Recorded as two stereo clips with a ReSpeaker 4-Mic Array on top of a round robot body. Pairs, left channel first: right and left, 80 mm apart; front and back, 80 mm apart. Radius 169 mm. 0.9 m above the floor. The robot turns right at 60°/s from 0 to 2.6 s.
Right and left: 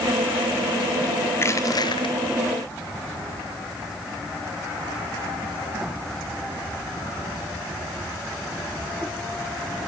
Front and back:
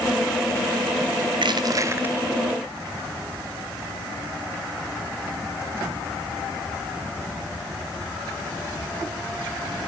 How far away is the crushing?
About 0.7 m.